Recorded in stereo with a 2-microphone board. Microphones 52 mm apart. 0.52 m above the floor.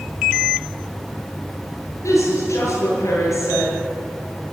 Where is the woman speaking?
75° left (ahead or behind), 9 m.